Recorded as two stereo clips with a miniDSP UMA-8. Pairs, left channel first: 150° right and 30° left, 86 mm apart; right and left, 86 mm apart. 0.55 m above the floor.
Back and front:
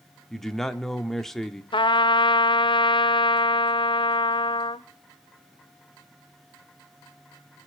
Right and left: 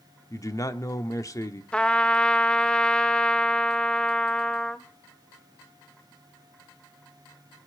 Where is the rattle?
No rattle in this recording.